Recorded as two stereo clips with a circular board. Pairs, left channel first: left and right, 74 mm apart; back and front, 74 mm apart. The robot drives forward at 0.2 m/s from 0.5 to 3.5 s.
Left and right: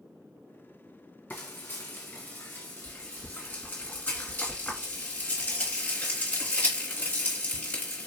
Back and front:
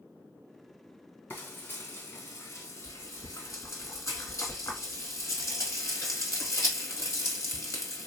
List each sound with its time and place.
1.3 s frying: 135° left, 1.0 m; by 8.1 s 155° left, 1.3 m